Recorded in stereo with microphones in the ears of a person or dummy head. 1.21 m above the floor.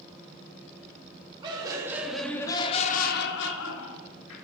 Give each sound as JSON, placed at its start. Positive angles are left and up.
{"t": 1.4, "sound": "laughter", "side_deg": -25, "distance_m": 0.9}